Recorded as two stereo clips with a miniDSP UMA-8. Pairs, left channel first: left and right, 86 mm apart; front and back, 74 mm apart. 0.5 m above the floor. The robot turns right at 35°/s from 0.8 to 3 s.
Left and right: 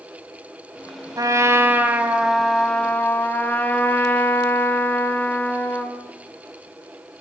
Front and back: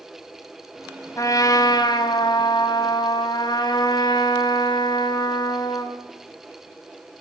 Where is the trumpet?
45° right, 3.5 m; by 5.9 s 20° left, 3.5 m.